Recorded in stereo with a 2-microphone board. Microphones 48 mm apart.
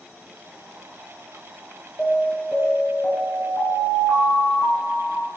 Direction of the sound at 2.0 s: 25° left (ahead or behind).